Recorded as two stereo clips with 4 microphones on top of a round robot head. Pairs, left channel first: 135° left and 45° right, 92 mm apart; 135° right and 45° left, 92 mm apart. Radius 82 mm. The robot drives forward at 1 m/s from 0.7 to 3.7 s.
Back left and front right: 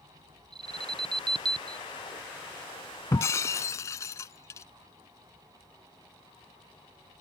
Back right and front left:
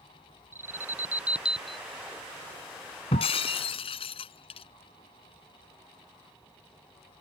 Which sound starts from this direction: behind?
Breaking glass, at 3.1 s.